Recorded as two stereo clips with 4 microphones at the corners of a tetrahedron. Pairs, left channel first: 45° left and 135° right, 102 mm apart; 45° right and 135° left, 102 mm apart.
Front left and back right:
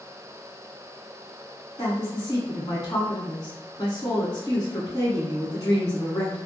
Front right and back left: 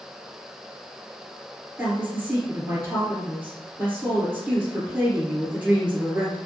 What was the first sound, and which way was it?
A woman speaking, 70° left.